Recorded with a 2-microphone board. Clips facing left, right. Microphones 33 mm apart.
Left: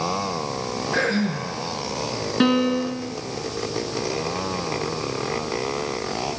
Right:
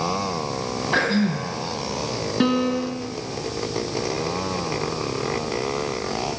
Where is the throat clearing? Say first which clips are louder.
Right 2 dB; 40° right (ahead or behind), 2.5 m.